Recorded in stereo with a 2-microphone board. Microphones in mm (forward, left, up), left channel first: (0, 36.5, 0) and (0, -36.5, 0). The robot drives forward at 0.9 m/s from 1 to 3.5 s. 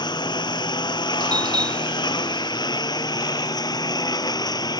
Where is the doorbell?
80° right; by 2.5 s 75° right (ahead or behind).